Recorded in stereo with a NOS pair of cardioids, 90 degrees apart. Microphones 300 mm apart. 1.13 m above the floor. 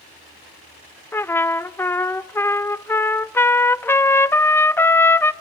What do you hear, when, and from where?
1.1 s a trumpet: 10° left, 0.5 m